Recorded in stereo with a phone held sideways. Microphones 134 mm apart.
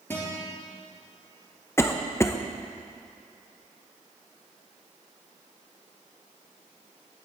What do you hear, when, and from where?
0.1 s a guitar: 15° left (ahead or behind), 4 m
1.8 s a cough: 20° left (ahead or behind), 0.6 m